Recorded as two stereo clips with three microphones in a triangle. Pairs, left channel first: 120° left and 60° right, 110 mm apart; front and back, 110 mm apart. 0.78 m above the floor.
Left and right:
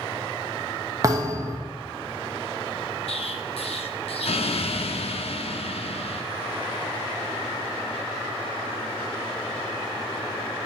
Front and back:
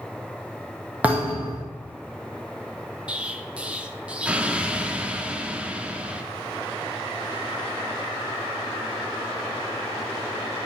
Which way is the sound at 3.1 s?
100° left.